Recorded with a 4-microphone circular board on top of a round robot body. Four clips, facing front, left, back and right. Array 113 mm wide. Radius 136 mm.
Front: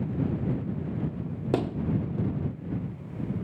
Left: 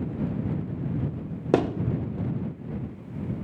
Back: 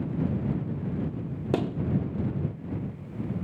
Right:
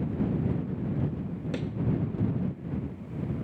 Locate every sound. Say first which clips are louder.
1.5 s a thud: left 13 dB, even; 80° left